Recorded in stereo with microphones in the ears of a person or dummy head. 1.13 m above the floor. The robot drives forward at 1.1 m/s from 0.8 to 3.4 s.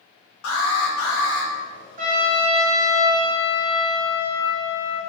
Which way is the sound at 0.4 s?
70° left (ahead or behind).